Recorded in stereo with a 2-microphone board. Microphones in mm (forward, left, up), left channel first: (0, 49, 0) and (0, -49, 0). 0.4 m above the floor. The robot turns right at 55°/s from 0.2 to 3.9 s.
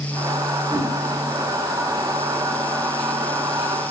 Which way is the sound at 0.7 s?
25° left (ahead or behind).